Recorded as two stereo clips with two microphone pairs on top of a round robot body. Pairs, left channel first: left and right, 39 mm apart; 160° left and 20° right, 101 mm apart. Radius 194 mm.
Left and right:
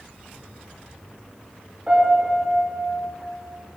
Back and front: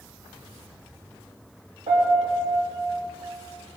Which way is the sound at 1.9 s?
20° right.